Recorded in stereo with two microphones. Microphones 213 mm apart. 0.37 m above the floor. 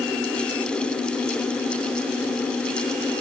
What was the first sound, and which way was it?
Only background noise.